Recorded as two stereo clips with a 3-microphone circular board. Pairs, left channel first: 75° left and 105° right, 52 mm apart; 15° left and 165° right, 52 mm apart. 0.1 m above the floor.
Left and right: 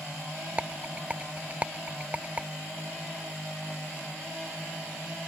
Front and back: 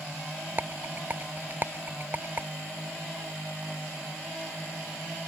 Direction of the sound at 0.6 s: 150° right.